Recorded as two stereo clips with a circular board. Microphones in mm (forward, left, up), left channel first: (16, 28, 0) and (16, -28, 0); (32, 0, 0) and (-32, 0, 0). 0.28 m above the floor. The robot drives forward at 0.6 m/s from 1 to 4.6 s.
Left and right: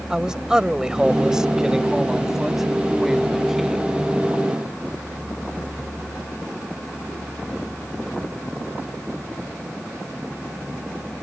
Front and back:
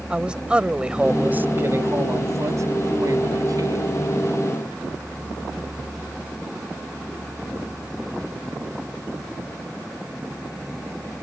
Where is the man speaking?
145° right; by 3.9 s 175° right.